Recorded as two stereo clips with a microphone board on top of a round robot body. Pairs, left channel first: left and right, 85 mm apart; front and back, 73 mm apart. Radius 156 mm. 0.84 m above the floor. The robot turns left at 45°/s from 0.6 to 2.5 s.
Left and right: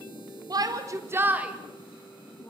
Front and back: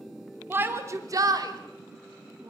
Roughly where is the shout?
Behind right.